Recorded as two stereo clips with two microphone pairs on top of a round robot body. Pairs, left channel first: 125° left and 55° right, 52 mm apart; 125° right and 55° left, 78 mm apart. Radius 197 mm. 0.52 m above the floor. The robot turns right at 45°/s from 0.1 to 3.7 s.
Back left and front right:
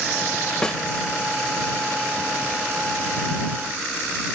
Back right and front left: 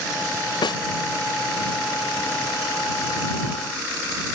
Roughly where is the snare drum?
Behind right.